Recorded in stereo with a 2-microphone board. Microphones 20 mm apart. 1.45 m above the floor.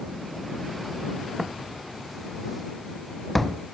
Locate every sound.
1.4 s footsteps: 10° right (ahead or behind); by 3.6 s 10° left (ahead or behind)